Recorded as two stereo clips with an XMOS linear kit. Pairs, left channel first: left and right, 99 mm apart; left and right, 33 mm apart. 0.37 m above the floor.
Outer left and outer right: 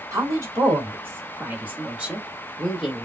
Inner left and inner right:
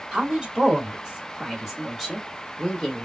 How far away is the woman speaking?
About 1.7 m.